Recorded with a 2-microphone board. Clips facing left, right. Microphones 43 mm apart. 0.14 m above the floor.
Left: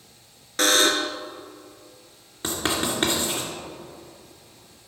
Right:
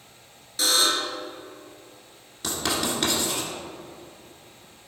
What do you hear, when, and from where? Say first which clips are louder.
0.6 s a buzzer: left 4 dB; 65° left (ahead or behind), 0.6 m
2.4 s writing: left 1 dB; 30° left (ahead or behind), 2 m